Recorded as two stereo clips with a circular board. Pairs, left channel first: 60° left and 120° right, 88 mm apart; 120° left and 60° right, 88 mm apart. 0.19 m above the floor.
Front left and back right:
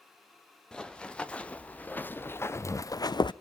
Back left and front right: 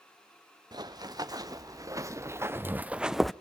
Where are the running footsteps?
20° right, 1.7 m; by 3.3 s 35° left, 0.5 m.